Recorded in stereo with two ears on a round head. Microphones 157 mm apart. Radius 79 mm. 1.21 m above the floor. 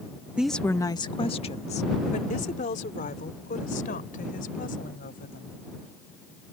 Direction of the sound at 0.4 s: 5° right (ahead or behind).